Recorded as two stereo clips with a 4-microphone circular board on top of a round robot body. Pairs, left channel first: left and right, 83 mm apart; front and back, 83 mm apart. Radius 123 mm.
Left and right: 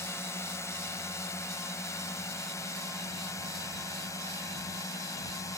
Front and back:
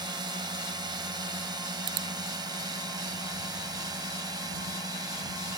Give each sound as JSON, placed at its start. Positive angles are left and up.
{"t": 0.0, "sound": "a drone", "azimuth_deg": 145}